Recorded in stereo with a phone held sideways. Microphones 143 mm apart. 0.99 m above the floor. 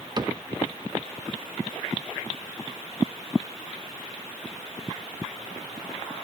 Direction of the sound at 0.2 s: 30° right (ahead or behind).